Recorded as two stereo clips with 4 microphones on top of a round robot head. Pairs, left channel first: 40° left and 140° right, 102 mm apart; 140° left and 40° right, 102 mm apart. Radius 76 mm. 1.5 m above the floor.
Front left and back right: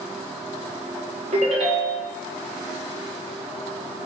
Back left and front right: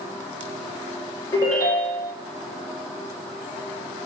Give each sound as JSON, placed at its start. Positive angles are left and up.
{"t": 1.3, "sound": "a ringtone", "azimuth_deg": -160, "distance_m": 0.6}